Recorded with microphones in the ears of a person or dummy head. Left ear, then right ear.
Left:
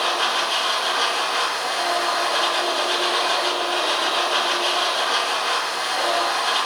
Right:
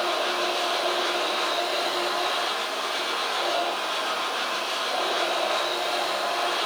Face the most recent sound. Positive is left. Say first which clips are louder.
# left 4 dB
turn(degrees=65)  # may be behind; listen again after turning